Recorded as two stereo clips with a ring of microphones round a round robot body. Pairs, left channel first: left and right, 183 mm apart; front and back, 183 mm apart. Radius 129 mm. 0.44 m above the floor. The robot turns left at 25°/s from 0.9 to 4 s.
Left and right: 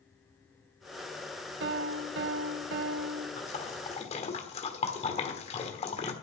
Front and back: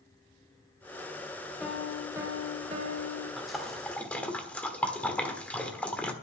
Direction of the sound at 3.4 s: 95° left.